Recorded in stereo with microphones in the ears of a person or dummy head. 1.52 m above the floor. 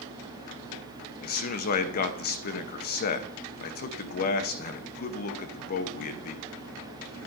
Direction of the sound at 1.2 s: 40° left (ahead or behind).